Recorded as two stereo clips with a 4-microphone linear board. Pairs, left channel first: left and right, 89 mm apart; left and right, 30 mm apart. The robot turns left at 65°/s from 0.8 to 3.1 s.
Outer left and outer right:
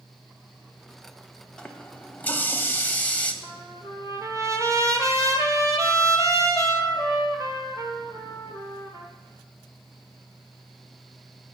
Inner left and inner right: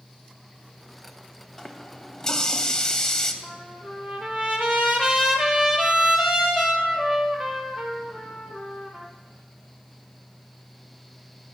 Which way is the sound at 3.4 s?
35° right (ahead or behind).